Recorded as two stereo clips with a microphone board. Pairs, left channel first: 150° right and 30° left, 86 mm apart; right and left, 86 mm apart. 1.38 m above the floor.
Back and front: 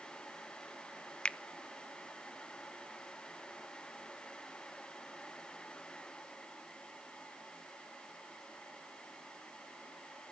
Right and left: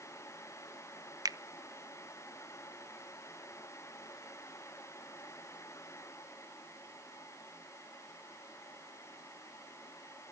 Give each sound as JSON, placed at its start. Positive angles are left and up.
{"t": 1.2, "sound": "a finger snap", "azimuth_deg": 130, "distance_m": 0.5}